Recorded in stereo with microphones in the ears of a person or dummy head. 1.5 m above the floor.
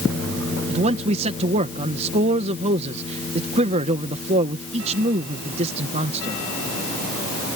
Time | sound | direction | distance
0.7 | a man speaking | 35° right (ahead or behind) | ?